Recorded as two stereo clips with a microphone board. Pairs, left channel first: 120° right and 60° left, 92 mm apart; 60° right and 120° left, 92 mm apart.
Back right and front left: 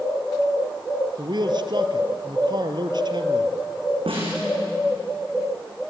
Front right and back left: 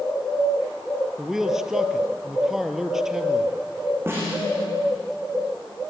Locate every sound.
1.2 s a man speaking: 35° left, 2 m
4.1 s a snare drum: 55° left, 8 m